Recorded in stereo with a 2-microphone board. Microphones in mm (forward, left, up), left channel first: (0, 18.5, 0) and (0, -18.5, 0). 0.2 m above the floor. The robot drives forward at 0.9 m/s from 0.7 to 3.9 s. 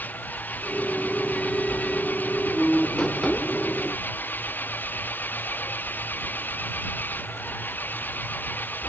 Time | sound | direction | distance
0.0 | an engine running | 50° left (ahead or behind) | ?